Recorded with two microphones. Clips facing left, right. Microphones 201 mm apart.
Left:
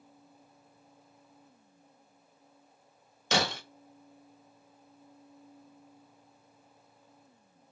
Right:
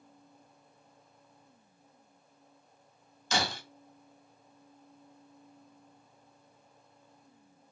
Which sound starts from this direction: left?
Breaking glass, at 3.3 s.